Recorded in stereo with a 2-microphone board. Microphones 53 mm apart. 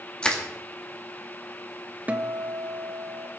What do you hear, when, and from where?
0.2 s crushing: 15° left (ahead or behind), 2.5 m
2.1 s a guitar: 30° right (ahead or behind), 1.1 m